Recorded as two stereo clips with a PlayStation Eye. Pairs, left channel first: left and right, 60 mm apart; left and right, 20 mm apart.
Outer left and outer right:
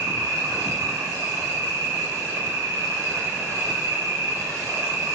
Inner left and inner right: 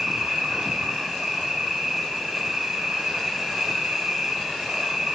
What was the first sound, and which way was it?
An insect, 80° right.